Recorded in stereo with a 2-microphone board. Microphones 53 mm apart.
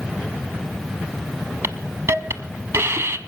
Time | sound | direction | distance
1.6 | a hiss | 55° right (ahead or behind) | 0.6 m